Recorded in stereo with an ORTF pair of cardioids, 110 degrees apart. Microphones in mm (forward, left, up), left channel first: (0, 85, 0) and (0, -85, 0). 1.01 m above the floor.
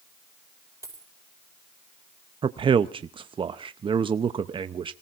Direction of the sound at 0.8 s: 15° right.